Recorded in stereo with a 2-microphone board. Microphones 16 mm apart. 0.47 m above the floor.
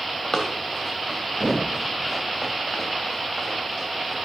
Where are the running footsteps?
30° left (ahead or behind), 1.8 m; by 4.2 s 10° right (ahead or behind), 3 m.